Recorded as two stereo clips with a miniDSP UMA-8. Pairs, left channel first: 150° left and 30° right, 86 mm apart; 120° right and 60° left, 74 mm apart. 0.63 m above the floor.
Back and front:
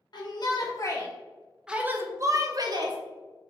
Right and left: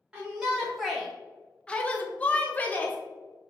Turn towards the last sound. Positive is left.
turn(degrees=-55)